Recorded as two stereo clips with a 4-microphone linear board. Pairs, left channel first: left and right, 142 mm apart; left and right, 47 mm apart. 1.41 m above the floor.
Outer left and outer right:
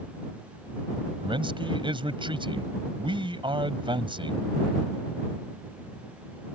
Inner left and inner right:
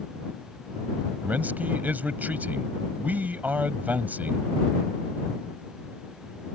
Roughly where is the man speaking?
Right.